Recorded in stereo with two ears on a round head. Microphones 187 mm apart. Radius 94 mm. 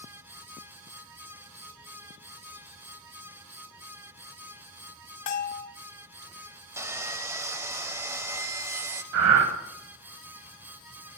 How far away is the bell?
About 0.7 m.